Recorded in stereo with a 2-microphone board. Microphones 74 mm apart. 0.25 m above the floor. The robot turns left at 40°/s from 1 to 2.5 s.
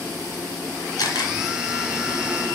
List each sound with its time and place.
1.0 s a camera shutter: 60° left (ahead or behind), 4.5 m; by 1.3 s 70° left (ahead or behind), 4.5 m